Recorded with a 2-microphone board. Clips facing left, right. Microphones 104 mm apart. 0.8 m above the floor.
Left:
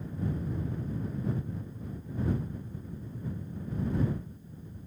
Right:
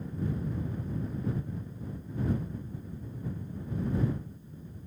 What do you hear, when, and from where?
Only background noise.